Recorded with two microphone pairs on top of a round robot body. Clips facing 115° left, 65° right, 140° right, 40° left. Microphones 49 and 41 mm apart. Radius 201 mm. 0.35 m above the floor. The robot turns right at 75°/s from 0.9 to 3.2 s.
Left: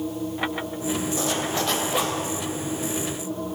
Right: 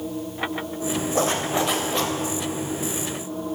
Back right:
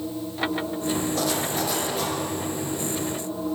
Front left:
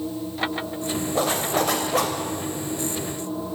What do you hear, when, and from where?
1.1 s a zipper: 30° right, 2.0 m; by 2.1 s 45° left, 2.0 m